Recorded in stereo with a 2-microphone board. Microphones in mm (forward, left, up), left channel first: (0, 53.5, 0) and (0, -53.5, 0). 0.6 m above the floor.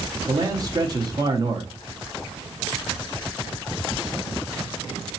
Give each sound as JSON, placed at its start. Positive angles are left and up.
{"t": 0.3, "sound": "a man speaking", "side_deg": -40, "distance_m": 0.7}